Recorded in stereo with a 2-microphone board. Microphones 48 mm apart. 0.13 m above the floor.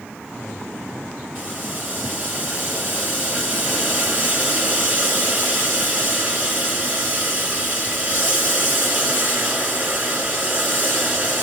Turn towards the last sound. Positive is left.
turn(degrees=-30)  # may be behind; listen again after turning